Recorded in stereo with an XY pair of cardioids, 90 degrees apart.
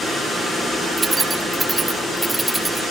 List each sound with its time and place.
1.0 s keys jangling: 30° right, 1.8 m; by 2.8 s 15° right, 3.5 m